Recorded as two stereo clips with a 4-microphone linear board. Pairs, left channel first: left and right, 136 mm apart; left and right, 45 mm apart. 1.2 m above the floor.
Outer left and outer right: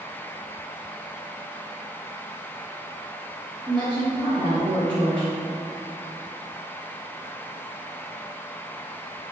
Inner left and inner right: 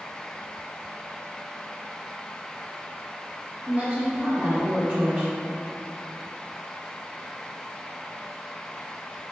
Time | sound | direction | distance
3.7 | a woman speaking | 35° right (ahead or behind) | 1.3 m